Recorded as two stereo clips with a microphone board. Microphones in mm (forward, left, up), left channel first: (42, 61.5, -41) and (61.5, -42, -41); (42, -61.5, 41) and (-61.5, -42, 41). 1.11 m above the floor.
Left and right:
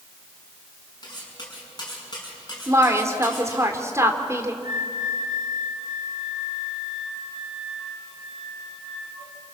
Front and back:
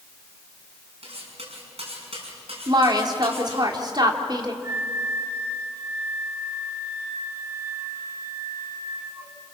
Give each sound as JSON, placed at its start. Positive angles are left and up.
{"t": 1.0, "sound": "cutlery clinking", "azimuth_deg": 150, "distance_m": 6.0}
{"t": 2.7, "sound": "a woman speaking", "azimuth_deg": -140, "distance_m": 2.5}
{"t": 4.6, "sound": "a flute", "azimuth_deg": -125, "distance_m": 3.5}